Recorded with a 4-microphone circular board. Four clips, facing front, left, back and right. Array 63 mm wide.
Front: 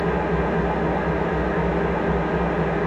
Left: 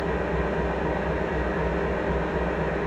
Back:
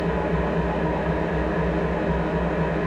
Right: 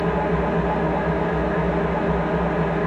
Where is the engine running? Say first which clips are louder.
Right 5 dB, front 2 dB; 65° right, 1.1 m.